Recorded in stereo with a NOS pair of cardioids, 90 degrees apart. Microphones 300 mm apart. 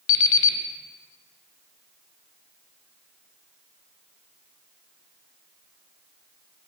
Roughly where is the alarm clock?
Ahead left.